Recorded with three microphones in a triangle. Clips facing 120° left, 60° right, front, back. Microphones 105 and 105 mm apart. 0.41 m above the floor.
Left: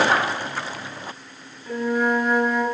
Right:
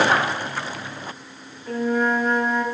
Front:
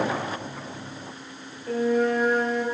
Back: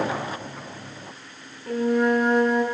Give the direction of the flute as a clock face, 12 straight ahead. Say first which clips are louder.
Even, back 1 dB; 5 o'clock.